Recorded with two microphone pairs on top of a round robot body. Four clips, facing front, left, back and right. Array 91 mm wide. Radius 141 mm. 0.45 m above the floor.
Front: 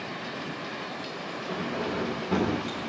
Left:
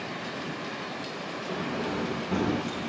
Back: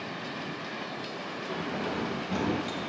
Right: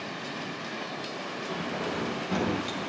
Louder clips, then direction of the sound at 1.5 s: Left 2 dB, front 2 dB; 25° left.